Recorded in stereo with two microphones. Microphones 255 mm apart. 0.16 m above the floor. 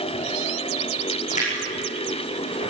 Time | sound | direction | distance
1.2 | a splash | 25° left (ahead or behind) | 8 m